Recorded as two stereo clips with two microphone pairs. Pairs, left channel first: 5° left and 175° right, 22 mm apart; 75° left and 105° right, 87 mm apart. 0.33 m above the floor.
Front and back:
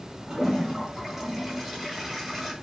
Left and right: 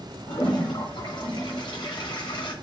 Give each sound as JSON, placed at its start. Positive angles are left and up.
{"t": 0.3, "sound": "a toilet flushing", "azimuth_deg": 100, "distance_m": 3.0}